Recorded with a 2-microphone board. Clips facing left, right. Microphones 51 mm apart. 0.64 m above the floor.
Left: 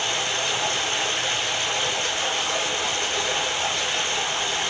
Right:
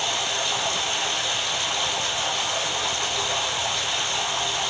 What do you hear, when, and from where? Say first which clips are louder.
0.0 s running water: left 1 dB; 45° left (ahead or behind), 1.6 m